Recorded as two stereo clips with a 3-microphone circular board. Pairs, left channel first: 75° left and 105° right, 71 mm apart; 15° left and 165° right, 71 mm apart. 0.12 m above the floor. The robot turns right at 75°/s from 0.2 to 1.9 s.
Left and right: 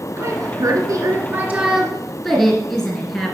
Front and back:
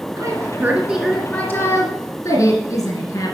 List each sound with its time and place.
0.2 s a woman speaking: 135° right, 2 m; by 3.4 s 5° right, 2 m